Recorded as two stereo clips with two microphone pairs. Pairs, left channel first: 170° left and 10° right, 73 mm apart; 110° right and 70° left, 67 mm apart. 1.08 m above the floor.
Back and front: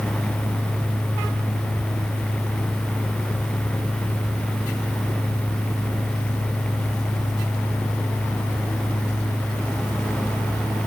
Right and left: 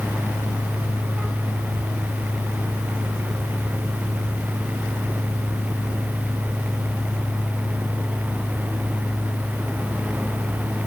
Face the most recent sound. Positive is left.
No sound to turn to.